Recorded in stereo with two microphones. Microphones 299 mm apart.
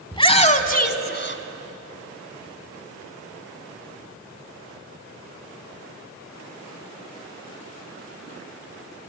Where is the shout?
15° left (ahead or behind), 1.5 m; by 1.4 s 40° left (ahead or behind), 1.7 m.